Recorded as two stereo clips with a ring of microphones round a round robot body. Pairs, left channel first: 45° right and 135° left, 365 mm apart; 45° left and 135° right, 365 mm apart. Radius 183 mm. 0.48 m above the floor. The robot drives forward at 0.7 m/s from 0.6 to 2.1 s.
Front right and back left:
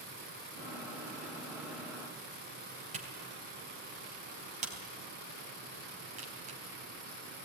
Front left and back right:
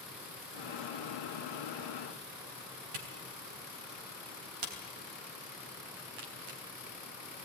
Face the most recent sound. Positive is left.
turn(degrees=-155)